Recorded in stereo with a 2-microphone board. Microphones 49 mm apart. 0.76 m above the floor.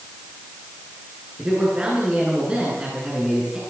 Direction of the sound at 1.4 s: 20° right (ahead or behind).